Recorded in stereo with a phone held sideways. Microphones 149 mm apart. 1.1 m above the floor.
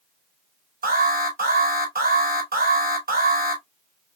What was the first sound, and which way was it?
An alarm, 90° right.